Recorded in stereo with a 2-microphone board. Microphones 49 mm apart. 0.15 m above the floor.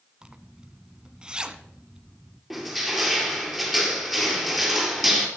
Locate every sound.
0.2 s a zipper: 20° right (ahead or behind), 0.9 m
2.5 s crushing: centre (ahead or behind), 3 m